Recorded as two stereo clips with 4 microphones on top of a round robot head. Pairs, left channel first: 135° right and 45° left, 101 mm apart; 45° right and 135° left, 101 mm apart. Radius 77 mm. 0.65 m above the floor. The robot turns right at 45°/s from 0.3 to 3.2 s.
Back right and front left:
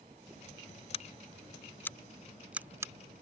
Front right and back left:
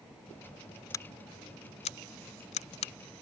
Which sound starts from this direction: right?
Scissors, at 0.9 s.